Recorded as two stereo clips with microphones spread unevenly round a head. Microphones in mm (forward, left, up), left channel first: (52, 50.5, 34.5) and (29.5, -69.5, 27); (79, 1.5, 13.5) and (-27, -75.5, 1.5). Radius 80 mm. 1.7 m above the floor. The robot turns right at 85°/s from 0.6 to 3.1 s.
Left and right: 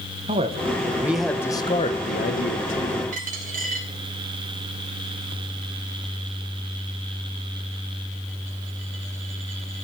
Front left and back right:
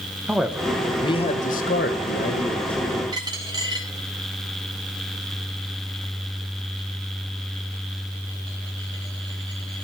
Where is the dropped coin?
85° right, 3.5 m.